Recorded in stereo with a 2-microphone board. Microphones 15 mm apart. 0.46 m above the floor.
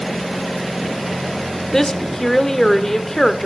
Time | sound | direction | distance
1.7 | a woman speaking | 25° left (ahead or behind) | 1.0 m